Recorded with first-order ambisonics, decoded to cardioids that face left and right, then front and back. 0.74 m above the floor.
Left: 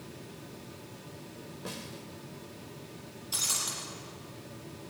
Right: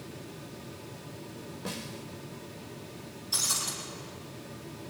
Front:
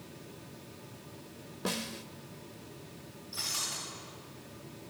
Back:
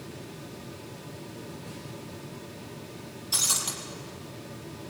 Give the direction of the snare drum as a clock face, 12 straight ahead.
12 o'clock.